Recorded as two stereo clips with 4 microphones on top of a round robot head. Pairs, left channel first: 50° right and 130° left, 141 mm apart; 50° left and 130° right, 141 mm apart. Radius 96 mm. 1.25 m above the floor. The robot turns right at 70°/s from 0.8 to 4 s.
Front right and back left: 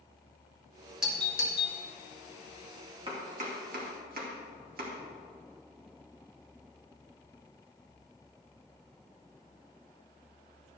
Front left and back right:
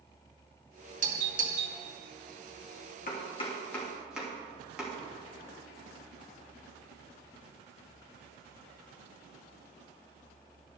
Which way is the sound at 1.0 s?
145° right.